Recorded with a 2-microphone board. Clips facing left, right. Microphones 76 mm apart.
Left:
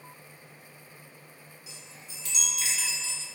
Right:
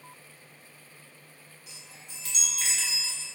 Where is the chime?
60° right (ahead or behind), 0.6 m.